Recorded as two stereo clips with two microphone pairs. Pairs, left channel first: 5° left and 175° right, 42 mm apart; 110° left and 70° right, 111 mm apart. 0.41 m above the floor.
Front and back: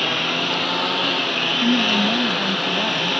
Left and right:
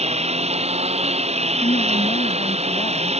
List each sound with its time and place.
0.0 s a lawn mower: 85° right
1.6 s a woman speaking: 115° left